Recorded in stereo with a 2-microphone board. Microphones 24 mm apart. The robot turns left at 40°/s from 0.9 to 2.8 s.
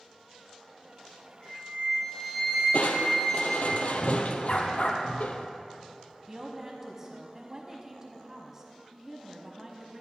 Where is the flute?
45° left, 3 m; by 3.7 s 10° right, 3 m.